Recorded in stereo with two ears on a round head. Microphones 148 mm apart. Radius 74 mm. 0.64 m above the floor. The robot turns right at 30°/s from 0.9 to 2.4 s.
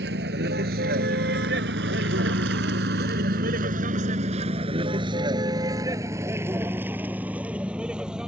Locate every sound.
0.0 s a vehicle: 75° right (ahead or behind); by 8.3 s 5° right (ahead or behind)